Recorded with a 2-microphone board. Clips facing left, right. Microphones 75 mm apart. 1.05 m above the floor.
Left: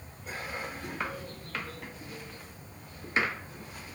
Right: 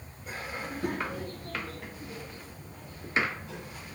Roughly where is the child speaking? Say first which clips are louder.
Right 7 dB; right.